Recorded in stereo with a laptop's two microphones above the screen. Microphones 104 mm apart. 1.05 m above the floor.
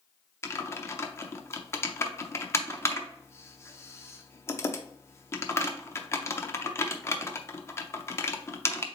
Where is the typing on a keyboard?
25° left (ahead or behind), 0.6 m.